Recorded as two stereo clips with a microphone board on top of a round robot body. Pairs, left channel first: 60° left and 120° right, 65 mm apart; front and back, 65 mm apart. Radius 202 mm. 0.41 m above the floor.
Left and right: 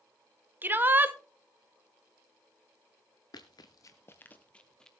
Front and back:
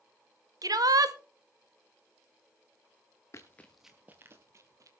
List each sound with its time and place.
0.6 s a shout: straight behind, 2.5 m
3.3 s running footsteps: 50° left, 0.6 m; by 4.9 s 140° left, 1.1 m